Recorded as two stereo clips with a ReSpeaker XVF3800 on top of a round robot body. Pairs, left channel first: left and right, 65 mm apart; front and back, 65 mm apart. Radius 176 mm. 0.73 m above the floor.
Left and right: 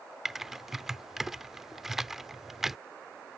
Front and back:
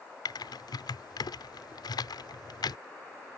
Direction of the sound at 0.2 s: 5° right.